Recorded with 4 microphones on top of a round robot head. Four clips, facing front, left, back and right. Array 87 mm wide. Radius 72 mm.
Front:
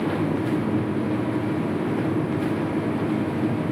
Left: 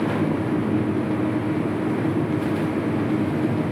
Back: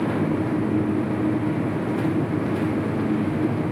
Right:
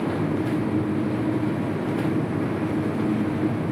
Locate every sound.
Only background noise.